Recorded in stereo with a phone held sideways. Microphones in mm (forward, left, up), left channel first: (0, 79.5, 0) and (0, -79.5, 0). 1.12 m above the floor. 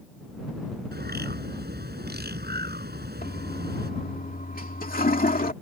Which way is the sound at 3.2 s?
65° left (ahead or behind).